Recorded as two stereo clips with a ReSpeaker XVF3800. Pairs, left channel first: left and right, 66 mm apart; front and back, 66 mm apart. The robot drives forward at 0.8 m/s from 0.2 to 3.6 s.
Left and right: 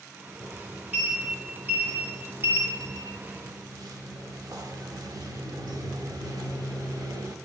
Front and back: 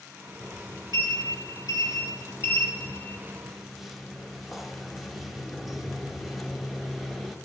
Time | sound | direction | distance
0.4 | a sliding door | 20° right | 2.5 m